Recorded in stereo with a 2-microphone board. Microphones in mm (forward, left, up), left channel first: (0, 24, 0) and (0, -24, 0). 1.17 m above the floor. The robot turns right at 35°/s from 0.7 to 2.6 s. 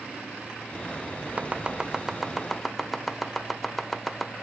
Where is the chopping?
30° right (ahead or behind), 1.1 m; by 4.3 s 5° left (ahead or behind), 1.1 m.